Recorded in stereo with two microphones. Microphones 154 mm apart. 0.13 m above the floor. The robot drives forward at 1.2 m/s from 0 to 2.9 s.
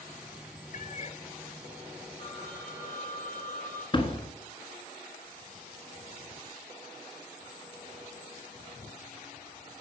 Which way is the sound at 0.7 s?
60° left (ahead or behind).